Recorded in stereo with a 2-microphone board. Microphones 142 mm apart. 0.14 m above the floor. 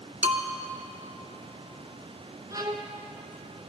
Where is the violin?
30° right (ahead or behind), 0.8 m.